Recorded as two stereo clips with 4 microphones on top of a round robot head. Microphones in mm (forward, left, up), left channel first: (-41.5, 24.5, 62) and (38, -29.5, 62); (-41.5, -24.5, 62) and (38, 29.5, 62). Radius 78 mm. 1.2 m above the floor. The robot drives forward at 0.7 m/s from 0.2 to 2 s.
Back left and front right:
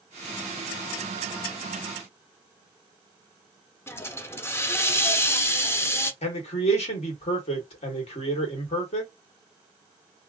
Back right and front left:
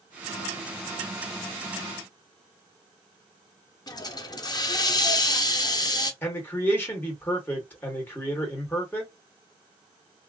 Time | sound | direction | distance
3.9 | a hiss | 160° right | 0.7 m
6.2 | a man speaking | 145° left | 1.4 m